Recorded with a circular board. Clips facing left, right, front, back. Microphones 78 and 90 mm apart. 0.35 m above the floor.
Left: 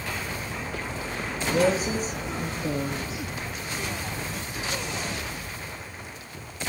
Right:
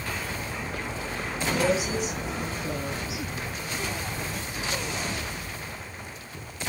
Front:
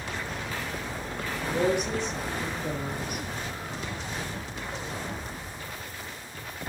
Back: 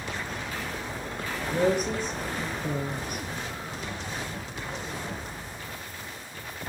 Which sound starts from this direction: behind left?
A woman speaking, at 1.5 s.